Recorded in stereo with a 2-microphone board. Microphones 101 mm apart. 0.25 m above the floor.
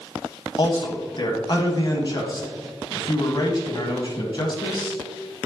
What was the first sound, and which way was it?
A man speaking, 50° left (ahead or behind).